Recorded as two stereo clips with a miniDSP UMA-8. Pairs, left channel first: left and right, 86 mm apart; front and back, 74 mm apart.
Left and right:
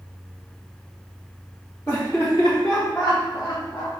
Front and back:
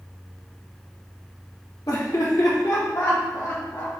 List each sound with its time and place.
1.9 s laughter: 20° left, 2.5 m; by 3.9 s 40° left, 1.1 m